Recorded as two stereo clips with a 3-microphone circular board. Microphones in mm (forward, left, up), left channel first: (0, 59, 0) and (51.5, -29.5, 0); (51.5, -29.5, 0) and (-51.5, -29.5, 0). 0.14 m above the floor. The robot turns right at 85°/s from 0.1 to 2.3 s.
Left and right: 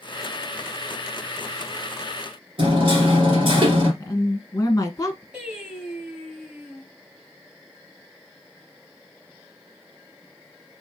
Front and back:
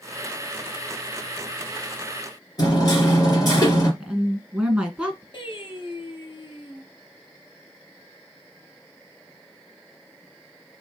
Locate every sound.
2.6 s hammering: 45° right, 2 m
4.0 s a woman speaking: 105° left, 1.3 m
5.3 s singing: 20° left, 2.0 m